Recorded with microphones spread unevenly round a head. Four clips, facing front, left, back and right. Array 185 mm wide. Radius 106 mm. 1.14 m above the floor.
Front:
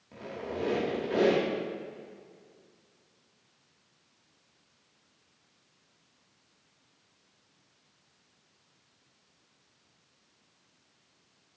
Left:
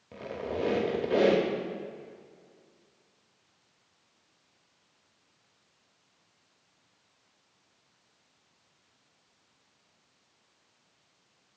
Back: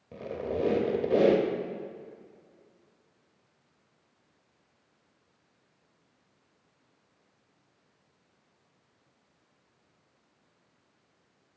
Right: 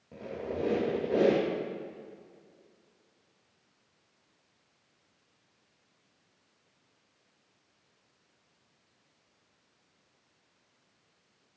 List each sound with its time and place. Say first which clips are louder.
0.1 s a squeak: left 2 dB, back 5 dB; 165° left, 0.6 m